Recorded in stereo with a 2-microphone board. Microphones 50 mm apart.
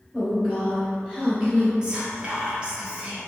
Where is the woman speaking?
Centre (ahead or behind), 1.3 m; by 1.7 s 25° right (ahead or behind), 1.7 m.